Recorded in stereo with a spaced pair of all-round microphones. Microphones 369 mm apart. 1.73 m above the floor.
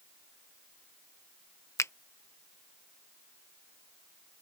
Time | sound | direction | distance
1.8 | a finger snap | 10° left (ahead or behind) | ?